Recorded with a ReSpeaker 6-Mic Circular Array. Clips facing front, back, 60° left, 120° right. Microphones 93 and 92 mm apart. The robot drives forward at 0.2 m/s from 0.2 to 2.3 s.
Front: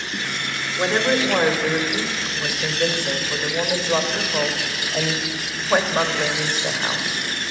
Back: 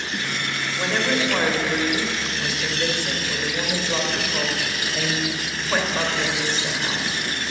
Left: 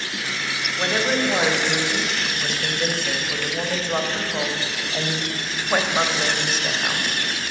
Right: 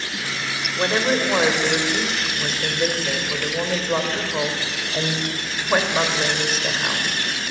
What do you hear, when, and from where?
0.8 s a woman speaking: 65° right, 2 m; by 7.2 s 75° right, 2 m